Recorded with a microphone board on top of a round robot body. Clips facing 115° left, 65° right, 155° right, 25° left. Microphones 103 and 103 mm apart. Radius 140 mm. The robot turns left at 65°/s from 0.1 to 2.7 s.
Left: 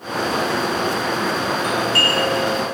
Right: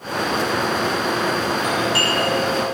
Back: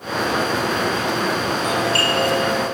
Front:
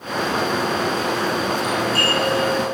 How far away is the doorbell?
About 4.5 m.